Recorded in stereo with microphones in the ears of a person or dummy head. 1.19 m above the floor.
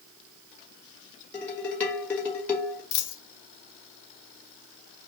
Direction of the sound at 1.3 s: 10° left (ahead or behind).